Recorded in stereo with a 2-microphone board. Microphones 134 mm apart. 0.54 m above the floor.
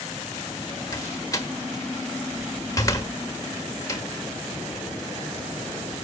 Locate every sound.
0.9 s a door slam: 25° left (ahead or behind), 1.4 m